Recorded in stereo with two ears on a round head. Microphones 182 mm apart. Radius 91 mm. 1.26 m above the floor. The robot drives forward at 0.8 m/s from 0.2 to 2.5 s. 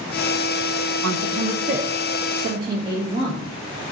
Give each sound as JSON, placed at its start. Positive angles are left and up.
{"t": 1.0, "sound": "a man speaking", "side_deg": -55, "distance_m": 0.8}